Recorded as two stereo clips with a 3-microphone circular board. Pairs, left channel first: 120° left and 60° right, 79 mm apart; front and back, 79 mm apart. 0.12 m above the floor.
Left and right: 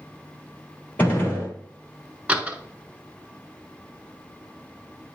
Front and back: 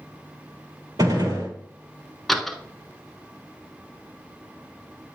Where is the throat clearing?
No throat clearing in this recording.